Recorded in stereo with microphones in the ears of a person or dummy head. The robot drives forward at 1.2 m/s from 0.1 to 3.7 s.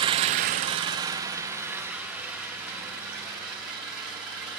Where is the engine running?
35° right (ahead or behind), 0.7 m; by 4.6 s 5° right (ahead or behind), 4 m.